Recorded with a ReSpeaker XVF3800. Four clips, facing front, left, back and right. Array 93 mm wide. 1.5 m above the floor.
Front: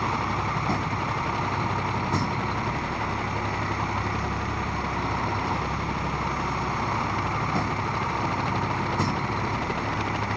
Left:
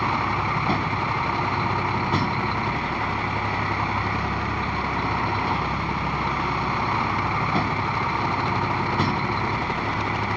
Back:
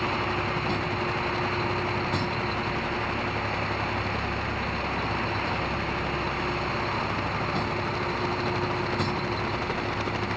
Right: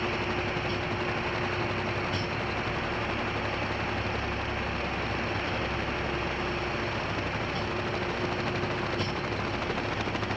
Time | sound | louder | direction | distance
0.0 | a vehicle | left 7 dB, front 1 dB | 75° left | ?